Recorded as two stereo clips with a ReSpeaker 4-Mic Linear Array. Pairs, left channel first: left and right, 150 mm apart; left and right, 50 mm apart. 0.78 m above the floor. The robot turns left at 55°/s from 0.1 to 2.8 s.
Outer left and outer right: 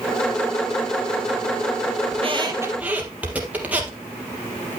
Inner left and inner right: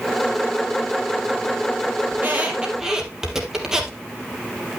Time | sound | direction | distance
2.1 | a squeak | 45° right (ahead or behind) | 2.5 m